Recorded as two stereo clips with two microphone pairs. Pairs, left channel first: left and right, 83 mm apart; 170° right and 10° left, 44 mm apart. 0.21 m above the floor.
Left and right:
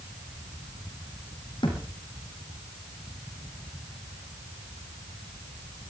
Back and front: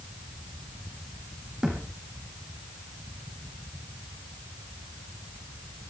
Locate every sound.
1.6 s a thud: 85° left, 5.5 m